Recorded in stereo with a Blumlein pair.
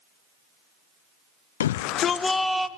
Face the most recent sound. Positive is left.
turn(degrees=-5)